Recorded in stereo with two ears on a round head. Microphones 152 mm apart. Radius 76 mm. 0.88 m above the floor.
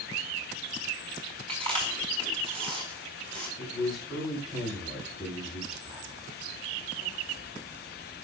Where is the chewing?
35° right (ahead or behind), 5.5 m.